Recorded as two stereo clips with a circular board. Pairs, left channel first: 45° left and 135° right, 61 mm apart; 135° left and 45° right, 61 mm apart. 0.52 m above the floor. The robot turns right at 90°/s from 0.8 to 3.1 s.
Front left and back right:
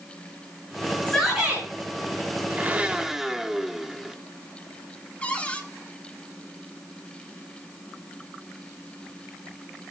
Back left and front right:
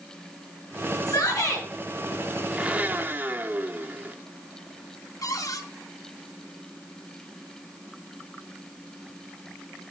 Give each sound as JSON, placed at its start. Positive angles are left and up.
{"t": 1.1, "sound": "a shout", "azimuth_deg": 120, "distance_m": 5.0}
{"t": 2.5, "sound": "a blender", "azimuth_deg": -110, "distance_m": 0.8}
{"t": 5.2, "sound": "a cupboard door", "azimuth_deg": 115, "distance_m": 1.6}